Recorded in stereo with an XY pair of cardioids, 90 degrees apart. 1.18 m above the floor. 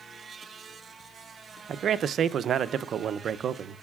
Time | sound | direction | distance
1.7 | a man speaking | 70° right | 0.5 m